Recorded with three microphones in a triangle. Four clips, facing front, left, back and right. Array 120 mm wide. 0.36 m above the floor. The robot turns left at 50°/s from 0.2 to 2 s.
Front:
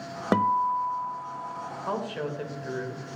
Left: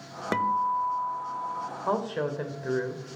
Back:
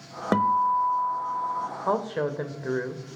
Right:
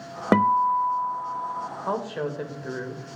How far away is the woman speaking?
About 1.4 m.